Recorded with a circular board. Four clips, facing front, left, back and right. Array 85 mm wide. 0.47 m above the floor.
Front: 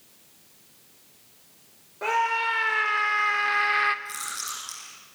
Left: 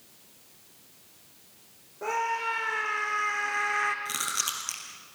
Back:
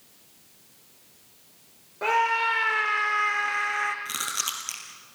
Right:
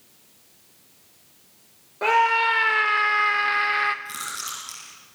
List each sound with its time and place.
2.0 s a scream: 100° right, 1.9 m; by 4.0 s 40° right, 1.3 m
4.0 s chewing: 150° left, 4 m